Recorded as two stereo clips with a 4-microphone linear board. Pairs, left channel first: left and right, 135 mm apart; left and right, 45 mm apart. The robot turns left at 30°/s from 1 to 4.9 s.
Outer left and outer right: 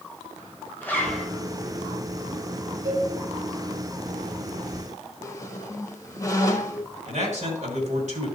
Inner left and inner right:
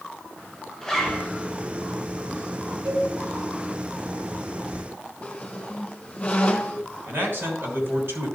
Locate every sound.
0.8 s a zipper: 15° left (ahead or behind), 2.5 m; by 1.3 s 5° left (ahead or behind), 2.5 m
2.9 s a cowbell: 25° right (ahead or behind), 5.5 m; by 3.1 s 35° right (ahead or behind), 5.5 m
5.2 s a squeak: 25° left (ahead or behind), 1.6 m
7.1 s a man speaking: 60° right (ahead or behind), 3 m